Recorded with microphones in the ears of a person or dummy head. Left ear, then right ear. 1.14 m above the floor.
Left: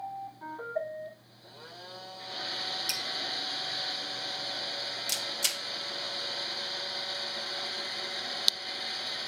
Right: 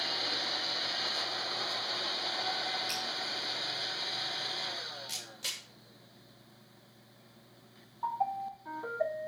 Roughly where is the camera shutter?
Left.